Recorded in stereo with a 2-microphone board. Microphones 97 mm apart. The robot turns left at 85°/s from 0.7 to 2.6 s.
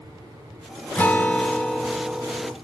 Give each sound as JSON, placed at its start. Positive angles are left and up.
{"t": 0.9, "sound": "a guitar", "side_deg": 20, "distance_m": 0.6}